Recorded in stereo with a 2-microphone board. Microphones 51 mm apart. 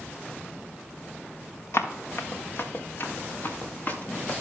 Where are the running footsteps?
60° left (ahead or behind), 1.9 m; by 4.4 s 35° left (ahead or behind), 3 m.